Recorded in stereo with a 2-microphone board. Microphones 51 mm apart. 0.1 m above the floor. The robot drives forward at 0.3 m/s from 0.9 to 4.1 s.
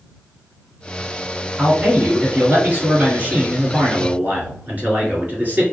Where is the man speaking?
30° right (ahead or behind), 1.7 m; by 5.6 s 35° right (ahead or behind), 1.5 m.